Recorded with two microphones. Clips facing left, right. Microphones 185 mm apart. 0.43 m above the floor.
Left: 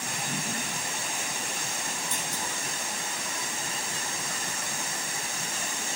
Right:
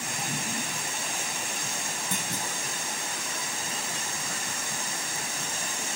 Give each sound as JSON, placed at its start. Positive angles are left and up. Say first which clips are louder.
{"t": 2.1, "sound": "a clunk", "louder": "right 1 dB", "side_deg": -60, "distance_m": 2.0}